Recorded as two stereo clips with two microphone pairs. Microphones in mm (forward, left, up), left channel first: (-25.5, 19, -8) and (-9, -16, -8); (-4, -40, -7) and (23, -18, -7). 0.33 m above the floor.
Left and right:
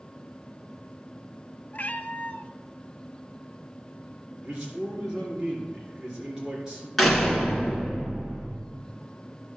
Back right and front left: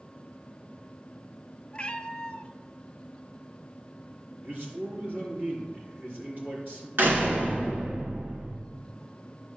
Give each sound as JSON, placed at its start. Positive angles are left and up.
{"t": 1.7, "sound": "a cat meowing", "azimuth_deg": 160, "distance_m": 0.6}
{"t": 4.4, "sound": "a man speaking", "azimuth_deg": 5, "distance_m": 4.0}
{"t": 7.0, "sound": "a door slam", "azimuth_deg": 30, "distance_m": 2.5}